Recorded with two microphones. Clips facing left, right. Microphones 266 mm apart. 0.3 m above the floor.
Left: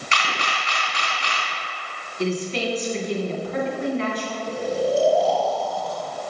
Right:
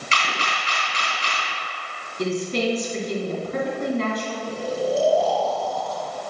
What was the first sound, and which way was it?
A camera shutter, 35° right (ahead or behind).